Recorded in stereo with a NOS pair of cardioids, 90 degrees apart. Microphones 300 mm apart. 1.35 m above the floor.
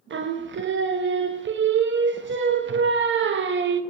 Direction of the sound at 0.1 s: 40° right.